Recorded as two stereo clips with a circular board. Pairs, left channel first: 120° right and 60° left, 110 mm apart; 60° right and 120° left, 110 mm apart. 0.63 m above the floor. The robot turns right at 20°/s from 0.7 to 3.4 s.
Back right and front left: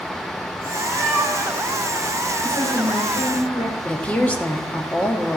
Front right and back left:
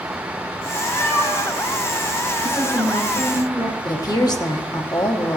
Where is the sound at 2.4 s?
160° right, 3 m; by 3.8 s 140° right, 3 m.